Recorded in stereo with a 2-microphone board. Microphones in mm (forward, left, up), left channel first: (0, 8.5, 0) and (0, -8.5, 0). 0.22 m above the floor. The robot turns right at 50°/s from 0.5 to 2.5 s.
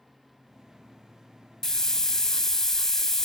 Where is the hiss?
75° left, 0.5 m; by 3.3 s 120° left, 0.5 m.